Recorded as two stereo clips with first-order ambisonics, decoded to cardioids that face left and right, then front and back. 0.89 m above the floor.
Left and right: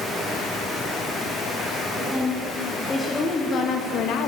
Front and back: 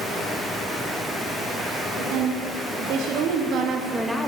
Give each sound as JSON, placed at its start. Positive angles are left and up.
{"t": 2.0, "sound": "a woman speaking", "azimuth_deg": 180, "distance_m": 3.0}